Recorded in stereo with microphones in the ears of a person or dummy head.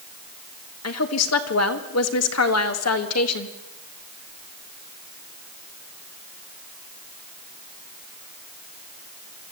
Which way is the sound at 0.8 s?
75° left (ahead or behind).